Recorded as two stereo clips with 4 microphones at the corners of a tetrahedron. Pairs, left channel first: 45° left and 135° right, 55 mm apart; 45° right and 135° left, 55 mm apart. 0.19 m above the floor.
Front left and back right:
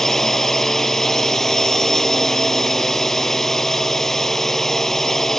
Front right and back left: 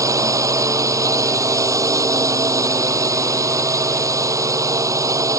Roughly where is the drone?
Behind left.